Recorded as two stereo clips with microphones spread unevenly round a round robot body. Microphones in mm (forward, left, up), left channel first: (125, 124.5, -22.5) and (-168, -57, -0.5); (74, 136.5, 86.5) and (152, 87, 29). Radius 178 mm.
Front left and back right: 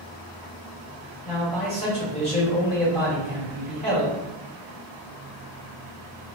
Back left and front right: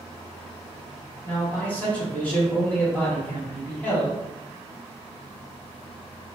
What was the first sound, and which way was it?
A man speaking, 5° left.